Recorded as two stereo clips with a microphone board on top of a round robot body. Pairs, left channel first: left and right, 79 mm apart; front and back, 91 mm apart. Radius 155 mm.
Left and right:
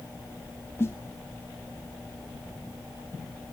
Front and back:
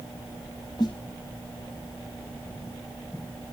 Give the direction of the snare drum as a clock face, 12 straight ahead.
11 o'clock.